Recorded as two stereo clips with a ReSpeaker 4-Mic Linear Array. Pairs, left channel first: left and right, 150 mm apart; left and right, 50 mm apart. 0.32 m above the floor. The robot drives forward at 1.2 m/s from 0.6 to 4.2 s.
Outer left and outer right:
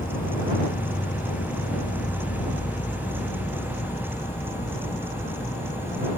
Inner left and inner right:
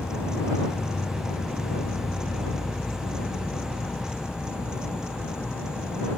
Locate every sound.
0.0 s an insect: 65° left (ahead or behind); by 6.2 s 45° left (ahead or behind)